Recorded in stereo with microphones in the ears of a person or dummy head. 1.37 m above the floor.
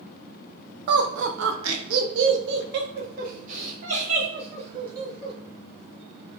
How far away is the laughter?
About 0.8 m.